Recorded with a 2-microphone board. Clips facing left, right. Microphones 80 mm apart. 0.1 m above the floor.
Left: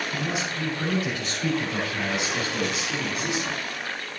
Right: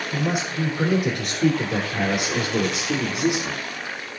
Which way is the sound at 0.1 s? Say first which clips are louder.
Right 4 dB; 50° right (ahead or behind).